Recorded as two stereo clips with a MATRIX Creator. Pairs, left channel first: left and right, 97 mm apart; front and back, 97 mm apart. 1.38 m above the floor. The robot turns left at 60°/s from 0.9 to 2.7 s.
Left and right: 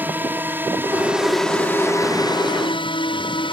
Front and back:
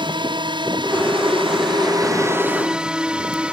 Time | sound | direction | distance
0.0 | a drone | 160° right | ?